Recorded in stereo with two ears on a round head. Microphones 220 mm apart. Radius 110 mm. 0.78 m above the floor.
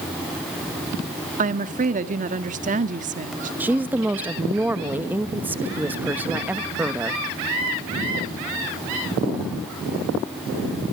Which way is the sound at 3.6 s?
5° right (ahead or behind).